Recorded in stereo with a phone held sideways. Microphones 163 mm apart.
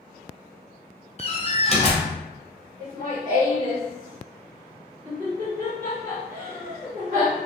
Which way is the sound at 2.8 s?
35° right (ahead or behind).